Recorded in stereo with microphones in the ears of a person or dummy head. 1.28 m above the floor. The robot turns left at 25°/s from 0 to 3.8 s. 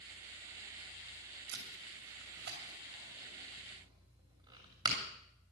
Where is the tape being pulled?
80° right, 2.5 m; by 5.0 s 25° right (ahead or behind), 2.5 m.